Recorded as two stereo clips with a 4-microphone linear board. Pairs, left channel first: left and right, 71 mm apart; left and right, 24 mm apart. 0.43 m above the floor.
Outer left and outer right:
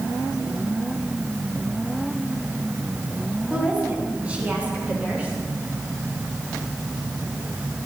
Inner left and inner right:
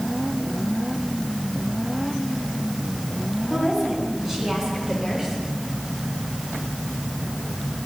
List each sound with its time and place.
3.5 s a woman speaking: 20° right (ahead or behind), 4 m